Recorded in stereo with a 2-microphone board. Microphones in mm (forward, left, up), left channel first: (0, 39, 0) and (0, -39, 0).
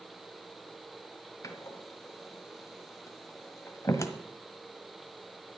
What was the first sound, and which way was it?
A door slam, 40° left (ahead or behind).